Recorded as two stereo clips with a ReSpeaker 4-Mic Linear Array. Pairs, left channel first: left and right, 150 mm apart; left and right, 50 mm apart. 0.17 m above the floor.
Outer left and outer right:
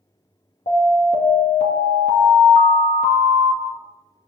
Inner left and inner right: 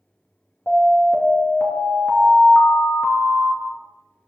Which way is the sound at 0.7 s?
55° left (ahead or behind).